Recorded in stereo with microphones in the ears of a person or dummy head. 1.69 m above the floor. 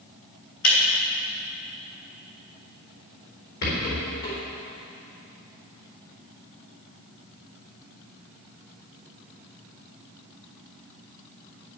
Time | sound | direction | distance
0.6 | breaking glass | 60° left (ahead or behind) | 3 m
3.6 | a rattle | 65° left (ahead or behind) | 4 m